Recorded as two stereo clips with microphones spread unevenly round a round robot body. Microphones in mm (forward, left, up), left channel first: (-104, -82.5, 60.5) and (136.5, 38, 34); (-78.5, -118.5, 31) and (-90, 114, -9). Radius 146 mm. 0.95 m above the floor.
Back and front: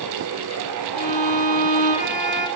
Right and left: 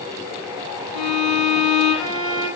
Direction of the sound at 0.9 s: 90° right.